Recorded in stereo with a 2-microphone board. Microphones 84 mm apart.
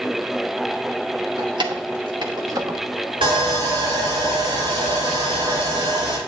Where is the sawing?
80° right, 5.5 m.